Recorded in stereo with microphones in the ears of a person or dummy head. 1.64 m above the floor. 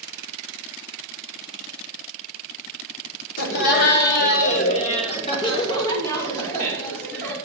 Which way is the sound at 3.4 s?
65° left (ahead or behind).